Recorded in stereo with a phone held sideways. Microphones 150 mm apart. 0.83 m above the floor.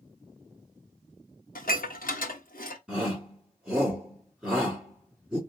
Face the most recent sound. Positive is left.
turn(degrees=-5)  # may be behind; listen again after turning